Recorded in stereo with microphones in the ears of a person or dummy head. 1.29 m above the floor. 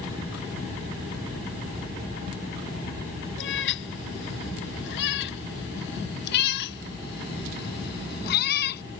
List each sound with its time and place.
3.4 s a cat meowing: 70° left (ahead or behind); by 8.8 s 55° left (ahead or behind)